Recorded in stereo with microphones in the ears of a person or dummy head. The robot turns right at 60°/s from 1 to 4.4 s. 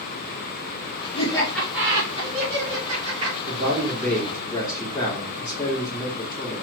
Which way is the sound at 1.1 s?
25° left (ahead or behind).